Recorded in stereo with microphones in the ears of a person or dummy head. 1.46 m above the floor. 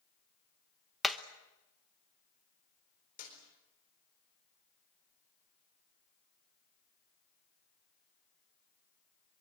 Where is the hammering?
Centre (ahead or behind), 1.1 m.